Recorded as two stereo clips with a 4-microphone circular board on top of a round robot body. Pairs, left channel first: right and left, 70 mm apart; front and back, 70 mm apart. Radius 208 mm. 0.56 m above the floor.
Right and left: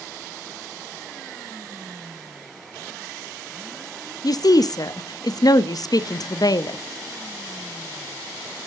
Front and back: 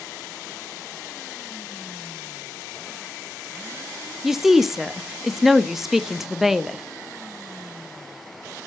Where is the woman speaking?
95° right, 1.1 m.